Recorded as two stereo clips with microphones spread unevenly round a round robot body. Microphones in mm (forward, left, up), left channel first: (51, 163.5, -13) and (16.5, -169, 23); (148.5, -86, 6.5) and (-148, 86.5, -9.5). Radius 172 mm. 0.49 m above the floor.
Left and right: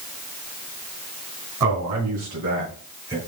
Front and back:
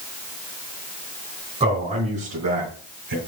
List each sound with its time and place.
1.6 s a man speaking: 135° right, 3.5 m; by 3.2 s straight behind, 3.5 m